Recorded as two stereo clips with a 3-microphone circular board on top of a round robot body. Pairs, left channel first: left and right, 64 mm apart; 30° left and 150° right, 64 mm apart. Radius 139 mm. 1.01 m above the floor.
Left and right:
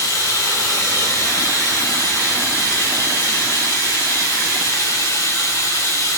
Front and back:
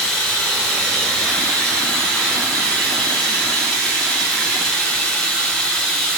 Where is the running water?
105° left, 4 m.